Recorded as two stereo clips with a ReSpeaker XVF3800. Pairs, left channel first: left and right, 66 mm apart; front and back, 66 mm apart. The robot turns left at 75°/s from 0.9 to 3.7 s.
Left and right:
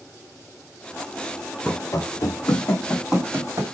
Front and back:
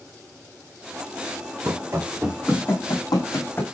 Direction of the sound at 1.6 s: 155° left.